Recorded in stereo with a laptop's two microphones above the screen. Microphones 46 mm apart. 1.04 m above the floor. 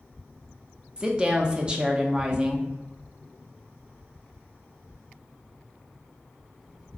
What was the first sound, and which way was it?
A woman speaking, 20° right (ahead or behind).